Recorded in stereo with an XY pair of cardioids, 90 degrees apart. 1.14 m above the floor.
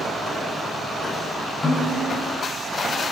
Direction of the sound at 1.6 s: 30° left.